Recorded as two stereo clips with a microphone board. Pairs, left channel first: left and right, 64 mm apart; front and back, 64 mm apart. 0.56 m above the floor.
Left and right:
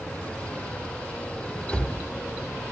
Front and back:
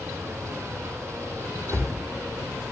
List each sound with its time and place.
1.7 s a cupboard door: 15° left, 0.7 m